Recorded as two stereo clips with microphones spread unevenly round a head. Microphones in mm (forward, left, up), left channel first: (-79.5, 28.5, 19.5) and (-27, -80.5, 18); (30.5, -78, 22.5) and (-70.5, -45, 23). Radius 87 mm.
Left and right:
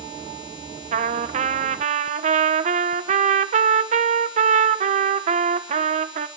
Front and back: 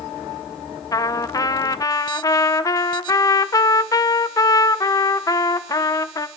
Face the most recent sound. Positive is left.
turn(degrees=-70)